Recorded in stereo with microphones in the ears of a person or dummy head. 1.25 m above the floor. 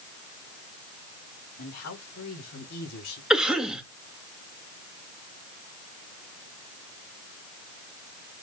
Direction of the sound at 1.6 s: 80° left.